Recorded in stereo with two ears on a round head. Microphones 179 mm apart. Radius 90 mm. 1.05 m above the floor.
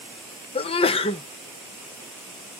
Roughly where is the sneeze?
Left.